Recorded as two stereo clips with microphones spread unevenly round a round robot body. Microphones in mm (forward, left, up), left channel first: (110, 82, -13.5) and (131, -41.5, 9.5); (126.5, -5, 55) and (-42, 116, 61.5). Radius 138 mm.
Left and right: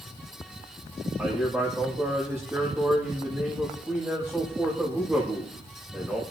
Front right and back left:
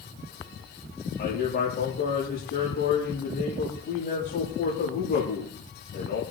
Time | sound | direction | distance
1.2 | a man speaking | 5° left | 8.5 m